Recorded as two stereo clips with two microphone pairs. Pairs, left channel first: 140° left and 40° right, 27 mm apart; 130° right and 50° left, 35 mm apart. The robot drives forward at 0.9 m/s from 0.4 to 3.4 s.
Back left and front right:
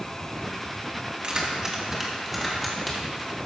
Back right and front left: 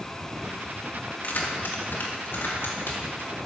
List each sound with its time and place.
1.2 s keys jangling: 100° right, 1.6 m; by 3.4 s 145° right, 2.5 m